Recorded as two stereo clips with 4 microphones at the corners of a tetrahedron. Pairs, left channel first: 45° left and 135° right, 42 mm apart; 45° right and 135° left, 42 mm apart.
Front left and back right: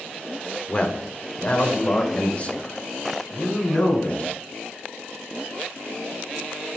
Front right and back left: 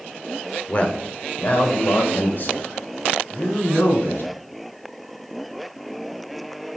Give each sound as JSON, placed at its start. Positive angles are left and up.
{"t": 0.7, "sound": "a man speaking", "azimuth_deg": -5, "distance_m": 1.0}